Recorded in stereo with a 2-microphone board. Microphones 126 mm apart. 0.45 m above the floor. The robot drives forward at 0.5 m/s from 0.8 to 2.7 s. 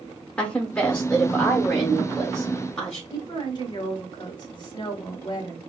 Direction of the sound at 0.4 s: 10° left (ahead or behind).